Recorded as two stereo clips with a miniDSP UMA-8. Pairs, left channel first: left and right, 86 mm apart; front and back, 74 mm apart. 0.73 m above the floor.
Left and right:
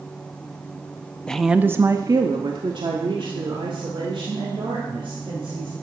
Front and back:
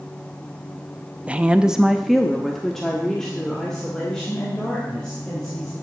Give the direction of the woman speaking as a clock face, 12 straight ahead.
7 o'clock.